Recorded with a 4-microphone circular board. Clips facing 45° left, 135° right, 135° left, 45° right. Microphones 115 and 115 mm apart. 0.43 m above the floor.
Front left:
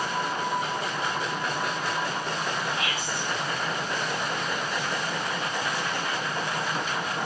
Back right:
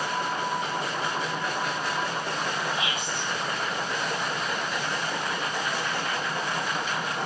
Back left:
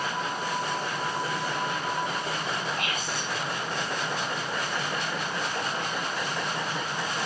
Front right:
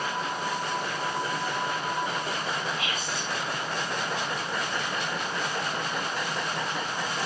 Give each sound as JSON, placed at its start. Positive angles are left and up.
{"t": 2.8, "sound": "whispering", "azimuth_deg": 160, "distance_m": 1.9}